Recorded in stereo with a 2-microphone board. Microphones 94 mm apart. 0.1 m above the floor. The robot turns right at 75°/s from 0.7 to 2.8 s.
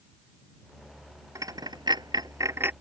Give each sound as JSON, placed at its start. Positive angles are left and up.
{"t": 1.4, "sound": "a dropped coin", "side_deg": -35}